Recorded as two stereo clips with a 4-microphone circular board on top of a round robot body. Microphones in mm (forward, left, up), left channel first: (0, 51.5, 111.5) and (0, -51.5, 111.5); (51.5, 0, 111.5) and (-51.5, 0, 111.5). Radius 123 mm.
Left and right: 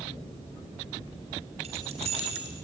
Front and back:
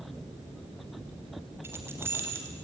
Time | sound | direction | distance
1.6 | keys jangling | 110° right | 3 m